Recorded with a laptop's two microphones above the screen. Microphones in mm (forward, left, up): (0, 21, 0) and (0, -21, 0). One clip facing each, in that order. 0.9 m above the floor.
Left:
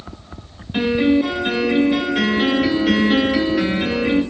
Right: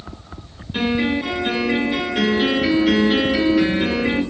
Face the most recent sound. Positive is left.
turn(degrees=10)  # may be behind; listen again after turning